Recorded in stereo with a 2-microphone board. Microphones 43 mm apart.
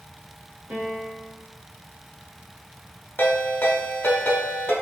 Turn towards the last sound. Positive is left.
turn(degrees=55)  # may be behind; listen again after turning